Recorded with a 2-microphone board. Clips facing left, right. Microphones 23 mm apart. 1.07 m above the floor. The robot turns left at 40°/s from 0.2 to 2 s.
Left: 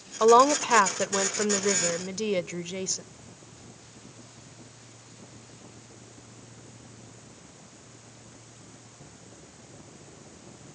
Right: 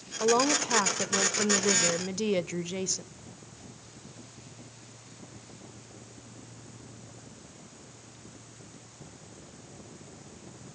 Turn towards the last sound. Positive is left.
turn(degrees=0)